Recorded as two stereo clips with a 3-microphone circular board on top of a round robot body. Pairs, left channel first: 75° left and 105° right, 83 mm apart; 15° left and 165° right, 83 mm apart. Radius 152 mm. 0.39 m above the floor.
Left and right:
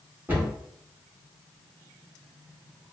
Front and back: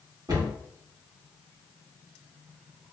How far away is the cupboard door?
About 1.7 m.